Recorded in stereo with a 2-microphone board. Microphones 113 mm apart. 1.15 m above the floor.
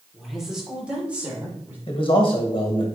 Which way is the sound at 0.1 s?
Centre (ahead or behind).